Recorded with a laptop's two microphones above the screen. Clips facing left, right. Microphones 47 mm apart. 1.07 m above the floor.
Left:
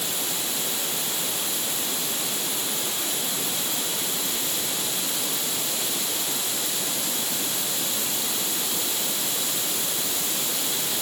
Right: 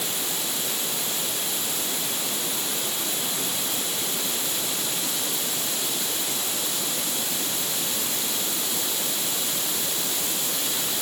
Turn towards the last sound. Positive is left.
No sound to turn to.